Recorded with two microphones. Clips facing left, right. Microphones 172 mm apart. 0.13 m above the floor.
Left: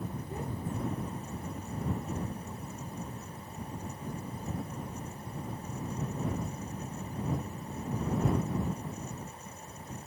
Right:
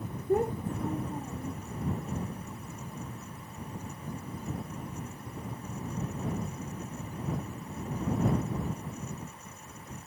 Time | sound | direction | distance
0.3 | a child speaking | 65° right (ahead or behind) | ?